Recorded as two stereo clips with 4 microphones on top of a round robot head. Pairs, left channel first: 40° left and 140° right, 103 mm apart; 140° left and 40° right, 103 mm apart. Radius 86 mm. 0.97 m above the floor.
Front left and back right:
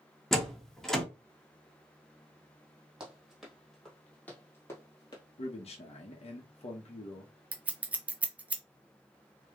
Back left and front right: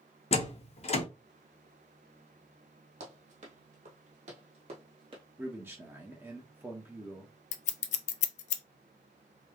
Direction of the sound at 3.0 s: 60° right.